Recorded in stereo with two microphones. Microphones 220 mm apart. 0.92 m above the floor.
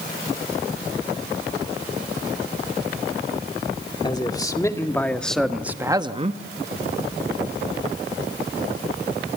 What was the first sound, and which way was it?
A man speaking, 20° left (ahead or behind).